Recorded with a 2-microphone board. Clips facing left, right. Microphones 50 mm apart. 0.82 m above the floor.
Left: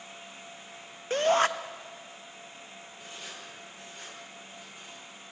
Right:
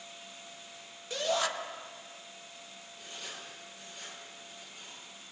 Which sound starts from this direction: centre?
Writing, at 3.0 s.